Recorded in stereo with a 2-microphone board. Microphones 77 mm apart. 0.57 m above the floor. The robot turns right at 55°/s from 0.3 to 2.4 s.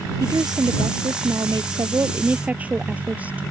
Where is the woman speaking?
135° right; by 3.4 s 20° right.